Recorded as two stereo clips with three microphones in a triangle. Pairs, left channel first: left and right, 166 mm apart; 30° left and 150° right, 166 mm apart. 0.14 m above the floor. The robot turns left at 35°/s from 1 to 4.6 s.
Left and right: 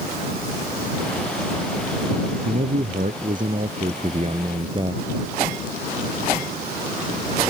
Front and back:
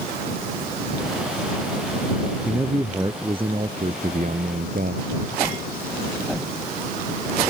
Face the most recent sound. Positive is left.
turn(degrees=-145)